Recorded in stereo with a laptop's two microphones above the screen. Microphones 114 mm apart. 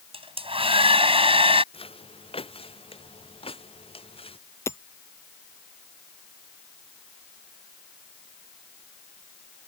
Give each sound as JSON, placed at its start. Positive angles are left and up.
{"t": 0.1, "sound": "a hair dryer", "side_deg": -55}
{"t": 1.7, "sound": "footsteps", "side_deg": 55}
{"t": 4.7, "sound": "hammering", "side_deg": 20}